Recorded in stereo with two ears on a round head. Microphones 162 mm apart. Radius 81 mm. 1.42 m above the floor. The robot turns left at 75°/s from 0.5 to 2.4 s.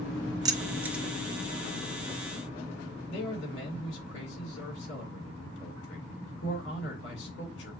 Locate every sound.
0.5 s keys jangling: 20° right (ahead or behind), 0.7 m; by 1.0 s centre (ahead or behind), 0.7 m
3.1 s a man speaking: 65° left (ahead or behind), 3 m